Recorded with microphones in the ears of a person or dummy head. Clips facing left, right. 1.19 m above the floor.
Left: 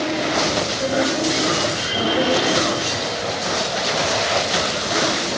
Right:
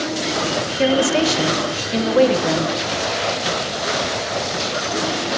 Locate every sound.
0.8 s a woman speaking: 80° right, 0.7 m